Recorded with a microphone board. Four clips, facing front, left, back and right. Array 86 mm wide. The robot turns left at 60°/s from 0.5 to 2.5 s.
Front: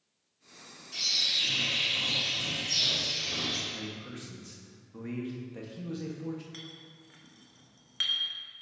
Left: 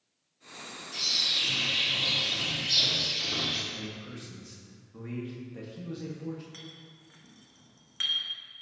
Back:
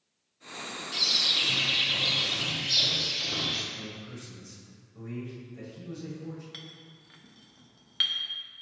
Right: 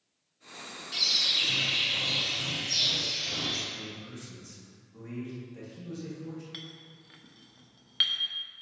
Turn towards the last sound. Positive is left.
turn(degrees=-120)